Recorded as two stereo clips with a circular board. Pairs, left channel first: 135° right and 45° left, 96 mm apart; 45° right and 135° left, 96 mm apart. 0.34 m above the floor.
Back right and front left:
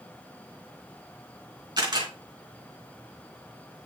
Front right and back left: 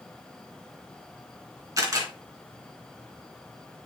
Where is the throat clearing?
No throat clearing in this recording.